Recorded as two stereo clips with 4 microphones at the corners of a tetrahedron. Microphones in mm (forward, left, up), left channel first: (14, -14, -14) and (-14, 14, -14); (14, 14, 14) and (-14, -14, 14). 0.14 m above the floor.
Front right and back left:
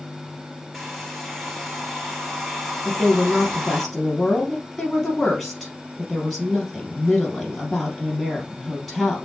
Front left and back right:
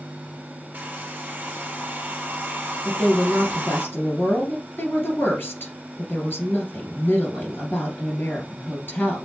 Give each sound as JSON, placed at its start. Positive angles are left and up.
{"t": 0.7, "sound": "a hair dryer", "azimuth_deg": -140, "distance_m": 2.0}
{"t": 2.9, "sound": "a woman speaking", "azimuth_deg": 35, "distance_m": 2.5}